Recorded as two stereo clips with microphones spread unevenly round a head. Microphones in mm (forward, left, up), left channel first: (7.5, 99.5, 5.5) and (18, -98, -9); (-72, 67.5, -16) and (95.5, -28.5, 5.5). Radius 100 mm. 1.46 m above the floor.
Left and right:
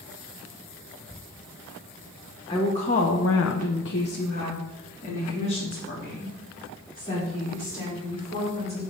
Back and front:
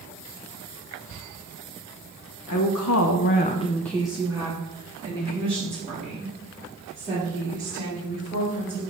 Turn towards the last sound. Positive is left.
turn(degrees=20)